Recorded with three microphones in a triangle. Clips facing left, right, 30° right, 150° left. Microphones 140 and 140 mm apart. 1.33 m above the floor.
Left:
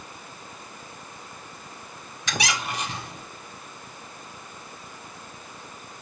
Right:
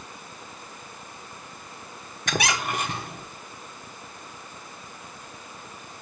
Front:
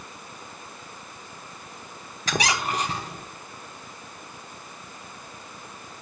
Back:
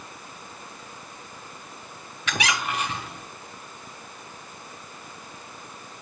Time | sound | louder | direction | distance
2.3 | a squeak | right 3 dB, front 2 dB | 75° right | 1.3 m